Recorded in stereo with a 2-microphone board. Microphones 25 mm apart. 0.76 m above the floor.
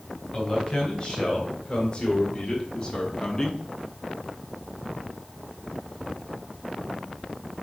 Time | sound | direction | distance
0.3 | a man speaking | 20° left (ahead or behind) | 3 m